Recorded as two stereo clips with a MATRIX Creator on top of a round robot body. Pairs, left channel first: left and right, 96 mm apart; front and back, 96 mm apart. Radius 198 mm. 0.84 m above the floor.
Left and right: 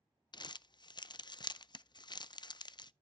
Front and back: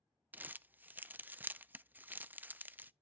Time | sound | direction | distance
0.3 | crumpling | 110° left | 0.6 m